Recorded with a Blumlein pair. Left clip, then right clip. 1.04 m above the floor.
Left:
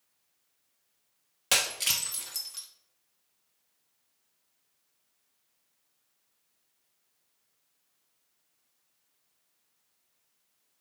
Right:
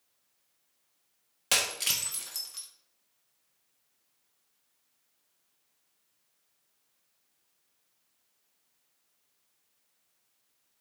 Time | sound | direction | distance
1.5 | breaking glass | 5° left | 1.0 m